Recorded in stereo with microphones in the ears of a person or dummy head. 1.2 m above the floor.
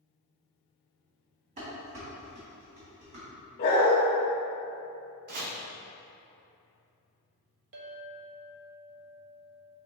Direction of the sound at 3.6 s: 25° left (ahead or behind).